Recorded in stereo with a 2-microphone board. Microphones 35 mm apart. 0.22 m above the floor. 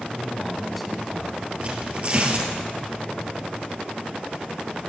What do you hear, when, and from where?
0.1 s a man speaking: centre (ahead or behind), 1.9 m
1.6 s tearing paper: 35° right (ahead or behind), 2 m